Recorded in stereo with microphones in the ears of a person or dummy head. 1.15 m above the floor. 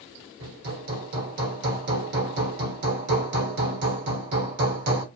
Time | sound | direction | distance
0.4 | hammering | 45° right (ahead or behind) | 1.1 m